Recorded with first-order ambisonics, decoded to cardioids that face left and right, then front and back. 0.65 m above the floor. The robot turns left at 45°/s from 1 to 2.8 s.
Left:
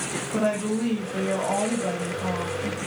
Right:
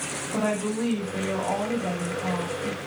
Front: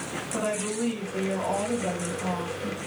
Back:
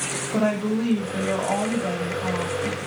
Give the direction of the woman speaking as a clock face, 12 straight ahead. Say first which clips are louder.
Left 2 dB, back 5 dB; 6 o'clock.